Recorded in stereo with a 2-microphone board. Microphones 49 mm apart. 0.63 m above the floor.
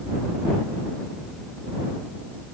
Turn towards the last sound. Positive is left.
No sound to turn to.